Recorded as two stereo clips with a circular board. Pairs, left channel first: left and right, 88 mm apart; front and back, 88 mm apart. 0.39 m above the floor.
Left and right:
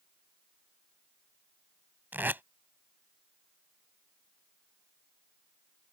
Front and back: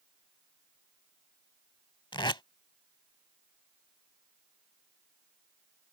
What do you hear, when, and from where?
2.1 s tape being pulled: 25° right